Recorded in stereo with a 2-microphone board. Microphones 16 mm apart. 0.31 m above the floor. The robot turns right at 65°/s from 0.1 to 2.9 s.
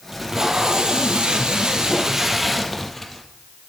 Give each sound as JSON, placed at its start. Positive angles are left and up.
{"t": 0.1, "sound": "tape being pulled", "azimuth_deg": -165, "distance_m": 1.4}